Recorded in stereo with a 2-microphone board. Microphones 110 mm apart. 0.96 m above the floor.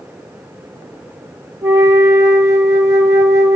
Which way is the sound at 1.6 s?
30° right (ahead or behind).